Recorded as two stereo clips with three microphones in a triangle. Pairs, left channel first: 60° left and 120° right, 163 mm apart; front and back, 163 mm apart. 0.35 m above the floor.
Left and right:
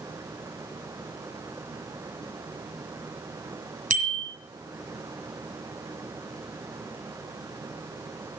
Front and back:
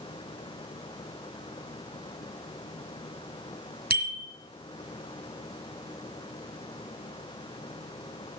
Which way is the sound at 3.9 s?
160° right.